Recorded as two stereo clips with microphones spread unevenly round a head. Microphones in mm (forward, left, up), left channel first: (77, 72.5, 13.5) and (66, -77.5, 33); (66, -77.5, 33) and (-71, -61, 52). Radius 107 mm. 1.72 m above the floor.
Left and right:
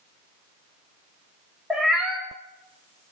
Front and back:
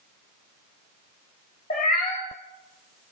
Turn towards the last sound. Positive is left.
turn(degrees=-15)